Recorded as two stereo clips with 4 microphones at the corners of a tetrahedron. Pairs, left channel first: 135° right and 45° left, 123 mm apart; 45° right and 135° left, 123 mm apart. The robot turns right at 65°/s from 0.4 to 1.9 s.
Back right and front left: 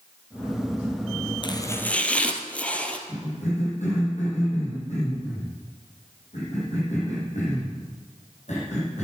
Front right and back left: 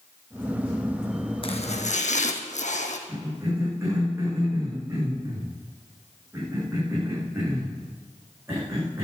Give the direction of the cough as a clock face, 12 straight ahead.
5 o'clock.